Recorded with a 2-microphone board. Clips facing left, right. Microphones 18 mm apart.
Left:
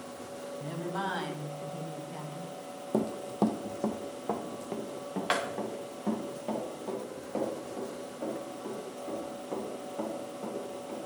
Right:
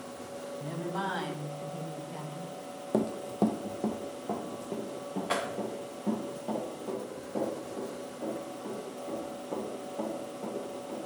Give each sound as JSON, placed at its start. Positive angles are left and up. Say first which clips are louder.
{"t": 0.6, "sound": "a woman speaking", "louder": "even", "side_deg": 20, "distance_m": 2.5}
{"t": 2.9, "sound": "running footsteps", "louder": "right 1 dB", "side_deg": -25, "distance_m": 0.7}